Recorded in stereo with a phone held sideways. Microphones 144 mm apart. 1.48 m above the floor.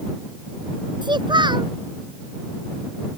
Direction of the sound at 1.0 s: 30° right (ahead or behind).